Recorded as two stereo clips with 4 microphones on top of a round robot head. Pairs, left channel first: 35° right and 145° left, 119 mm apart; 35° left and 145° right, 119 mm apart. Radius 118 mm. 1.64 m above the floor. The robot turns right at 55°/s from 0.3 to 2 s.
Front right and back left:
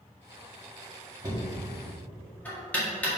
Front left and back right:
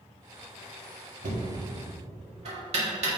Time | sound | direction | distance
1.2 | knocking | 150° right | 1.8 m